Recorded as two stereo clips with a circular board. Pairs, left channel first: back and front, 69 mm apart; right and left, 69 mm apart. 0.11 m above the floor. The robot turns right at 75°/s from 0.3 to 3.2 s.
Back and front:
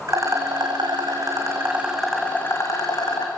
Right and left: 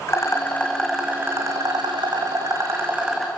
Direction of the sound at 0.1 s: 40° right.